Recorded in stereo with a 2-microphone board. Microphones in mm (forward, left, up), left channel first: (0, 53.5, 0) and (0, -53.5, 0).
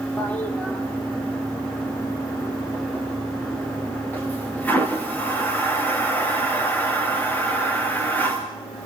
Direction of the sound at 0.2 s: 15° left (ahead or behind).